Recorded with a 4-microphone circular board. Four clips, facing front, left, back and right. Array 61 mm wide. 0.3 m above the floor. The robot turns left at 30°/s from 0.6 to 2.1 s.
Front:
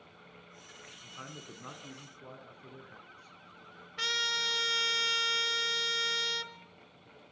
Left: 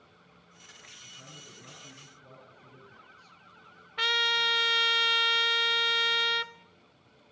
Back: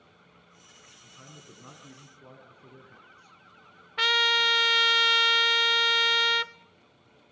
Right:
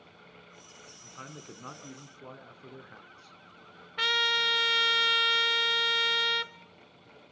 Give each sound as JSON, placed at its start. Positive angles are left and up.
{"t": 1.0, "sound": "a man speaking", "azimuth_deg": -50, "distance_m": 3.5}
{"t": 4.0, "sound": "a trumpet", "azimuth_deg": 180, "distance_m": 0.7}